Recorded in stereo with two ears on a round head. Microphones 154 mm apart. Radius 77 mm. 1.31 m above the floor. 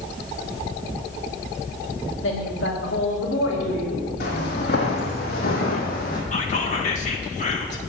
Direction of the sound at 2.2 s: 75° left (ahead or behind).